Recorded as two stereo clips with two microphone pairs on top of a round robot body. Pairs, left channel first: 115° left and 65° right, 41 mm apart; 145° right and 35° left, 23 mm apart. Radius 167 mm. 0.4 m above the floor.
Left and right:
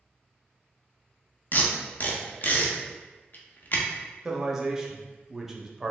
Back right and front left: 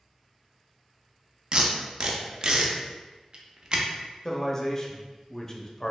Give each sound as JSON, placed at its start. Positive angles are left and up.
{"t": 1.5, "sound": "tape being pulled", "azimuth_deg": 75, "distance_m": 0.7}
{"t": 4.2, "sound": "a man speaking", "azimuth_deg": -120, "distance_m": 0.8}